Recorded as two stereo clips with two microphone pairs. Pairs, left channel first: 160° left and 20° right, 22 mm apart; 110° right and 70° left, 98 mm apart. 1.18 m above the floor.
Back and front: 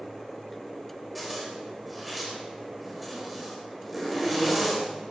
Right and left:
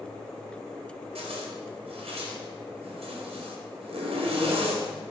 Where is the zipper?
65° left, 4.5 m.